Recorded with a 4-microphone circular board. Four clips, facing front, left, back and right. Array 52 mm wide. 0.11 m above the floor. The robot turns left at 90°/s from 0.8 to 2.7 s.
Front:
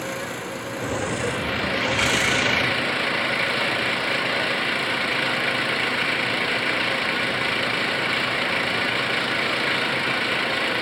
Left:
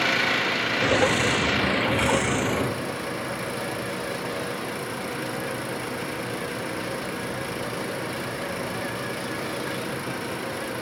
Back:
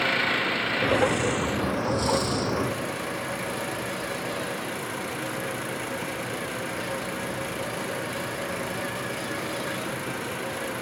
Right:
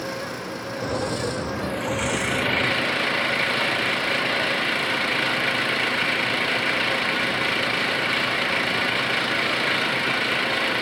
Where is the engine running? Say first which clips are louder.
Left 8 dB, back 6 dB; 125° left; by 10.8 s 45° right.